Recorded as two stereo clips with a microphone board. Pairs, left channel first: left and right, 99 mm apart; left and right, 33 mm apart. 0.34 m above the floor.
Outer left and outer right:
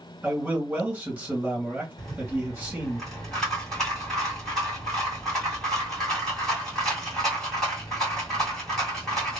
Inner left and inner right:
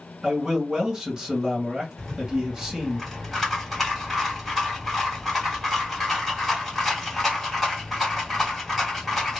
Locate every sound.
0.2 s a man speaking: 20° right (ahead or behind), 1.7 m
2.0 s a rattle: 5° left (ahead or behind), 2.5 m